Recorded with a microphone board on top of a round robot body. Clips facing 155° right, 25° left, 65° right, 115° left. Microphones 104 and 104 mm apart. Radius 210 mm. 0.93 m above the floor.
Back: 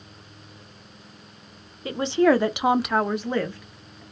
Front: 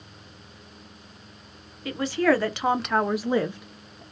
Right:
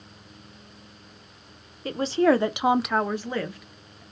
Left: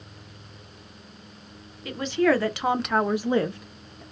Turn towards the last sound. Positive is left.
turn(degrees=80)